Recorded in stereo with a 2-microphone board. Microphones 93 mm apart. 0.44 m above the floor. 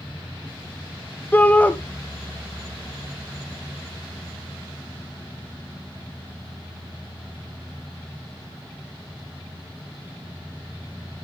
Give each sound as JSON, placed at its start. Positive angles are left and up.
{"t": 1.3, "sound": "a shout", "side_deg": 20, "distance_m": 0.8}